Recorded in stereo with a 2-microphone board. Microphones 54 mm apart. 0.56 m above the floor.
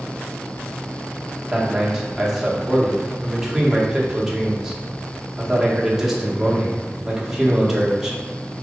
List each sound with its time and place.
1.5 s a man speaking: 10° right (ahead or behind), 1.4 m